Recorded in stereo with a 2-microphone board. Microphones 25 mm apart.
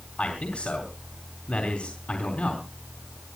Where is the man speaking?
60° left (ahead or behind), 3.5 m.